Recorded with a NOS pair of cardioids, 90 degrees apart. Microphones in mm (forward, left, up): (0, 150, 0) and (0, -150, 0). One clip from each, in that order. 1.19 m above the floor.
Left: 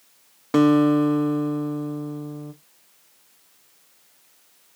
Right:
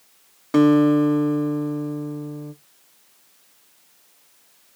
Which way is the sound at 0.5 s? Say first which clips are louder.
Right 1 dB; 10° left.